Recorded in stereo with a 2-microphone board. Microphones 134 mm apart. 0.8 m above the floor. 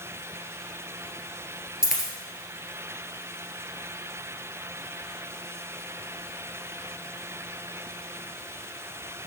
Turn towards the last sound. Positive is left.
turn(degrees=-5)  # may be behind; listen again after turning